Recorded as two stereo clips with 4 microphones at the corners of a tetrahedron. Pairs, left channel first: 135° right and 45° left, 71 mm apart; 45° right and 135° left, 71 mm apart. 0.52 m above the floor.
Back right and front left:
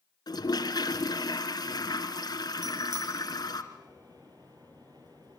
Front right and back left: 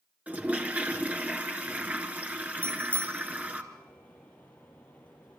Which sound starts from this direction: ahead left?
A bicycle bell, at 2.6 s.